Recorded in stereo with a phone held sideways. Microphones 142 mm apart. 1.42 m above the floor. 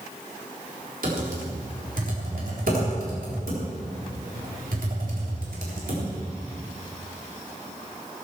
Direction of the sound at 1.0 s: 75° right (ahead or behind).